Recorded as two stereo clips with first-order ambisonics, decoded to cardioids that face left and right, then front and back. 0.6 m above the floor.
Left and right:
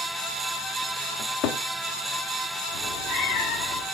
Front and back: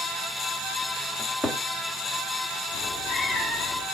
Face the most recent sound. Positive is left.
turn(degrees=65)